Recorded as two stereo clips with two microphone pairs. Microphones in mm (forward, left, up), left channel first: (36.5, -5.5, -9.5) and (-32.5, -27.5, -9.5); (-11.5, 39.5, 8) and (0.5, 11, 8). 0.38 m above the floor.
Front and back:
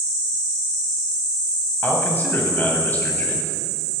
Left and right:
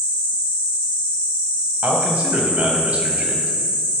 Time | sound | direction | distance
1.8 | a man speaking | 40° right | 3 m